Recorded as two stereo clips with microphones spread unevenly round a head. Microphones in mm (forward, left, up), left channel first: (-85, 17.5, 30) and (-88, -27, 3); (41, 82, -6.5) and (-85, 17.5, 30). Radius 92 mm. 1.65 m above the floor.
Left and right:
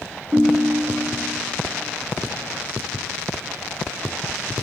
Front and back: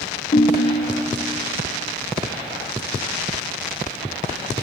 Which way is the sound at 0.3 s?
35° left.